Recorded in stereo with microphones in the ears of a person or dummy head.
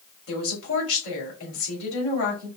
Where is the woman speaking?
55° left (ahead or behind), 2.5 m.